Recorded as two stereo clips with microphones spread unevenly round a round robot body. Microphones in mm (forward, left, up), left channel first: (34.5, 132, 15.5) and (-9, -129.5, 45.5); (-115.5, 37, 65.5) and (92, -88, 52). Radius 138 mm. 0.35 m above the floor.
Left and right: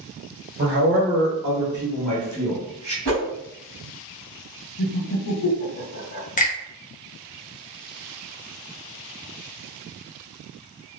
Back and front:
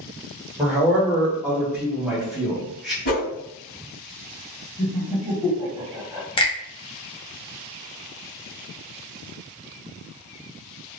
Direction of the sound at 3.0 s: 160° right.